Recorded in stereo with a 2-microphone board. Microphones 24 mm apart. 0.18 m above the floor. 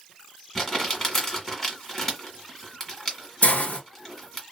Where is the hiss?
70° left (ahead or behind), 1.1 m.